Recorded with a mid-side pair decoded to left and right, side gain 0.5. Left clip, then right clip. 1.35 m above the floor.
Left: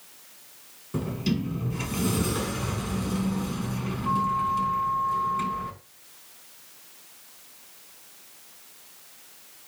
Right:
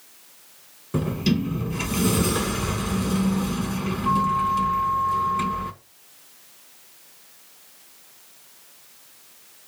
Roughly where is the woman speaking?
No woman speaking in this recording.